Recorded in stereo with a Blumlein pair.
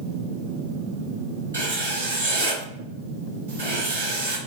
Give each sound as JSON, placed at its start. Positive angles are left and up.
{"t": 1.5, "sound": "writing", "azimuth_deg": -70, "distance_m": 1.4}